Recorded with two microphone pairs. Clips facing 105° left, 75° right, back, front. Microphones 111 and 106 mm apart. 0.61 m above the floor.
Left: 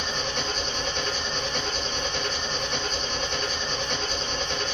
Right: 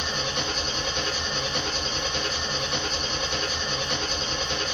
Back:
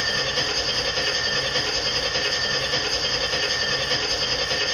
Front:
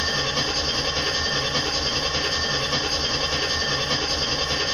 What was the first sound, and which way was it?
An engine running, 10° left.